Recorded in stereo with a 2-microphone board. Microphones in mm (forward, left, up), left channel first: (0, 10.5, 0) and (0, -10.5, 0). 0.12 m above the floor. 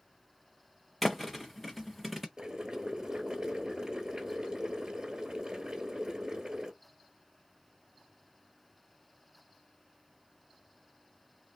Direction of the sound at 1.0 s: 5° right (ahead or behind).